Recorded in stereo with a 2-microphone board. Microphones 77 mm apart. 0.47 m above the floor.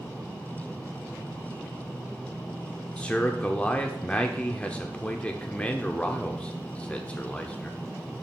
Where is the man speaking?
15° left (ahead or behind), 0.9 m.